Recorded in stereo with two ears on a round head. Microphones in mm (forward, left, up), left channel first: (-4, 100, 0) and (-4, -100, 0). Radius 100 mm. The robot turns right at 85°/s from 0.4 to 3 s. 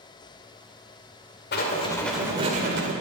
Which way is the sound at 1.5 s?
125° left.